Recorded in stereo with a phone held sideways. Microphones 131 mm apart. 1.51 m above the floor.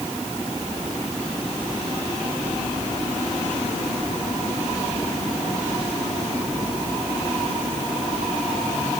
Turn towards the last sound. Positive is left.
No sound to turn to.